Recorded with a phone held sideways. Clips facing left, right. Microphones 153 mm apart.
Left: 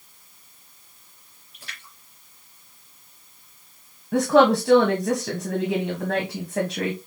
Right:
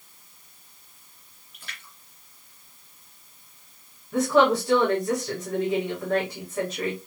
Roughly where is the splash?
Left.